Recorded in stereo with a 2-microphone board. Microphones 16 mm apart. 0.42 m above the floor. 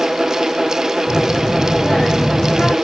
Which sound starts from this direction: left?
A child speaking, at 1.1 s.